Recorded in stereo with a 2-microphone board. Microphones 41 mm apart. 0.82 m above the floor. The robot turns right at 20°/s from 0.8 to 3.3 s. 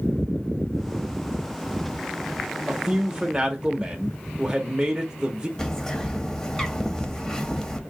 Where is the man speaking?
10° right (ahead or behind), 0.6 m; by 5.5 s 15° right (ahead or behind), 0.6 m.